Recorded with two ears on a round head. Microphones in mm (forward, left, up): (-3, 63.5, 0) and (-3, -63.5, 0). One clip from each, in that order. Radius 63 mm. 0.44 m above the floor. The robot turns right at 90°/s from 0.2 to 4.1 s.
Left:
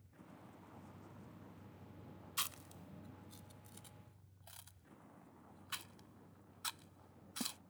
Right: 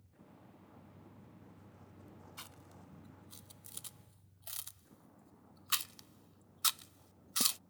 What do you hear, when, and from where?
0.0 s a vehicle: 30° left (ahead or behind); by 7.7 s 60° left (ahead or behind)
2.4 s chewing: 60° left (ahead or behind); by 7.6 s 85° right